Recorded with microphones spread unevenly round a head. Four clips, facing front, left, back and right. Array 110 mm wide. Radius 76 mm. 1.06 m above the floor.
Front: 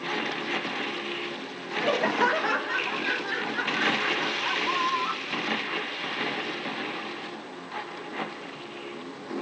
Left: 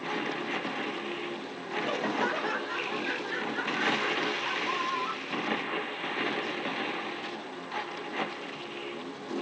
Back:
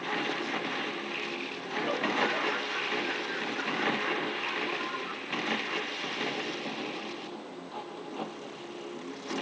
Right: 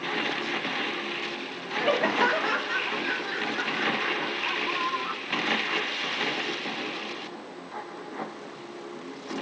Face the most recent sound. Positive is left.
turn(degrees=-20)